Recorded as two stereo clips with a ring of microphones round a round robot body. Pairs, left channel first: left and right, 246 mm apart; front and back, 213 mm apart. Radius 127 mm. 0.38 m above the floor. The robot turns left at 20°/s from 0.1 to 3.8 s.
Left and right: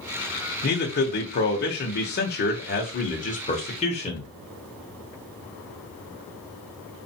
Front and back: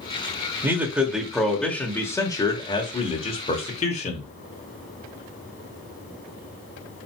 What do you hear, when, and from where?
0.6 s a man speaking: 105° left, 1.2 m; by 4.3 s 40° left, 1.2 m